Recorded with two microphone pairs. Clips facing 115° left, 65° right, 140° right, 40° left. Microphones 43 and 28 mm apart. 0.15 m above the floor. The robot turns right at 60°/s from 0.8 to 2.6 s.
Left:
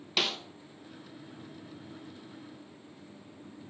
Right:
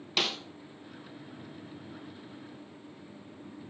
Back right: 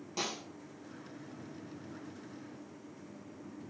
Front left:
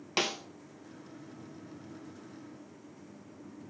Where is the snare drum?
25° left, 0.6 m.